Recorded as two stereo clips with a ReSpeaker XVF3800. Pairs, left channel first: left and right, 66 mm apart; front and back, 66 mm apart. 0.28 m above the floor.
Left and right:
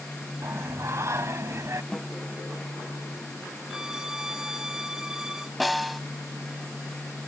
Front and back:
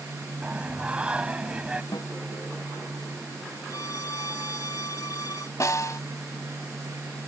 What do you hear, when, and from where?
0.4 s singing: 110° right
1.9 s a snare drum: 5° left
3.7 s a violin: 10° right
5.6 s a snare drum: straight ahead